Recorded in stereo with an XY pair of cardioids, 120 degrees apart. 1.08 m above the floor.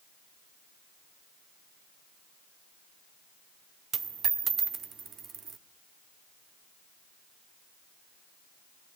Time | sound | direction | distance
3.9 | a dropped coin | 40° right | 1.2 m